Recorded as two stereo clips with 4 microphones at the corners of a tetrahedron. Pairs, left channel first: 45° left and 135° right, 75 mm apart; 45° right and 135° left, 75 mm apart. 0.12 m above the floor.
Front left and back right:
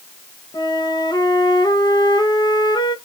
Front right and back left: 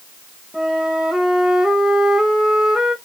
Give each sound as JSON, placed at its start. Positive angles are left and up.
{"t": 0.5, "sound": "a flute", "azimuth_deg": 50, "distance_m": 0.6}